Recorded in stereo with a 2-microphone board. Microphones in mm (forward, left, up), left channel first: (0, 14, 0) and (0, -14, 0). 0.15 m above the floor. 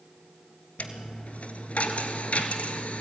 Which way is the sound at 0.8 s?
50° left (ahead or behind).